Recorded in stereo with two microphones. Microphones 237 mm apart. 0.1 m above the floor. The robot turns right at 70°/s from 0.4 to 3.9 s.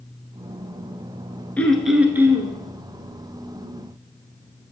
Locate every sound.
1.6 s throat clearing: 5° left (ahead or behind), 1.0 m; by 2.5 s 15° right (ahead or behind), 1.0 m